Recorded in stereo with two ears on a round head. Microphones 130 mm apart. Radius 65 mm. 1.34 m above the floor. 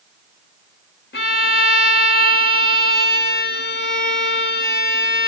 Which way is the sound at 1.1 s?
75° left (ahead or behind).